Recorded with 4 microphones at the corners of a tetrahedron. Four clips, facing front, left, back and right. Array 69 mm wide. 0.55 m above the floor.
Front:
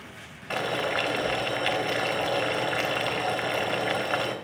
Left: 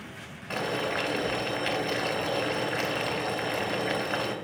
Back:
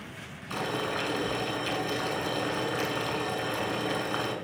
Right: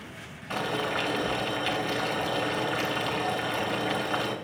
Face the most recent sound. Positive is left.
turn(degrees=15)